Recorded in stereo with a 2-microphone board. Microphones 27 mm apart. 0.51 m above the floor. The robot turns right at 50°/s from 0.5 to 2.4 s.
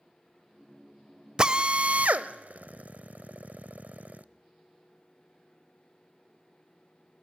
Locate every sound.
1.4 s a drill: 25° right (ahead or behind), 0.7 m; by 4.2 s 75° right (ahead or behind), 0.7 m